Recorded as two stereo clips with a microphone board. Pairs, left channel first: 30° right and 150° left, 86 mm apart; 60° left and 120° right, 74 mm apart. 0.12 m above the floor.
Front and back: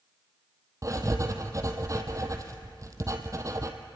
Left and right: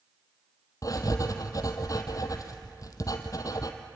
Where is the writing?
100° left, 1.7 m.